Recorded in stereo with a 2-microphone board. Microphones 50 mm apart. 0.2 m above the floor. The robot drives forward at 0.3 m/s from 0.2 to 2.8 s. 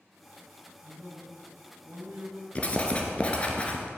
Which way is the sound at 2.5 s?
30° left (ahead or behind).